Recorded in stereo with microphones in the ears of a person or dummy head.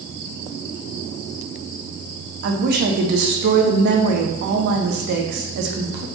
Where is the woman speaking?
65° right (ahead or behind), 0.8 m.